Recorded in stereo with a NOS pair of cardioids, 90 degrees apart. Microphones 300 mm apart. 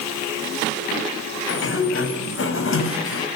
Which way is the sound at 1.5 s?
45° left.